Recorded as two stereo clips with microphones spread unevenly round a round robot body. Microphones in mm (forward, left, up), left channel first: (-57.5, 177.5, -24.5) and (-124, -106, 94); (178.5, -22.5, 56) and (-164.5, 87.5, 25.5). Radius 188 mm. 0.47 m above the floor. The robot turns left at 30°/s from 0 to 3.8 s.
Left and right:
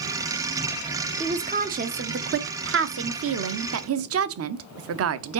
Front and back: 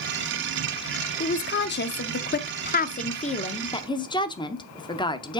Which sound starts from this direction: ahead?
A woman speaking, at 1.2 s.